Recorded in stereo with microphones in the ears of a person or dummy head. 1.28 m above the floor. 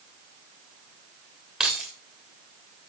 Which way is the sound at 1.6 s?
Centre (ahead or behind).